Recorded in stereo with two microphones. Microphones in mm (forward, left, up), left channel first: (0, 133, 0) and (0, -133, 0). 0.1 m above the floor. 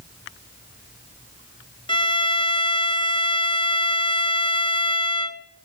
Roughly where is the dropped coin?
No dropped coin in this recording.